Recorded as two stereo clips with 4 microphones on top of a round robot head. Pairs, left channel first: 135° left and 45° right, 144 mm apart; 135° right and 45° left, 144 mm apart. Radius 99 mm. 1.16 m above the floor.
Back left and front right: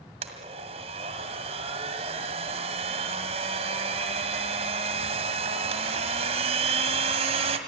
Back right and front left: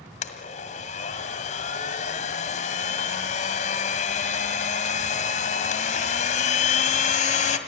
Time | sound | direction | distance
0.2 | a blender | 100° right | 1.8 m